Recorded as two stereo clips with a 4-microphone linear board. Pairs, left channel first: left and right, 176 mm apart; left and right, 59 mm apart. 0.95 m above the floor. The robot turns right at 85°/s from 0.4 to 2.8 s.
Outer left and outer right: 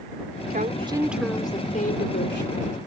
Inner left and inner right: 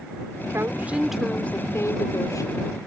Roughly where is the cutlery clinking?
No cutlery clinking in this recording.